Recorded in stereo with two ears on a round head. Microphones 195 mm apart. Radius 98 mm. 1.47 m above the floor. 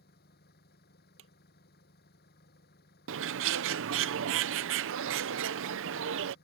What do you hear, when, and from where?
0.0 s an engine running: 45° left (ahead or behind)
1.2 s a drawer: 65° right (ahead or behind)
3.1 s a bird: 60° right (ahead or behind)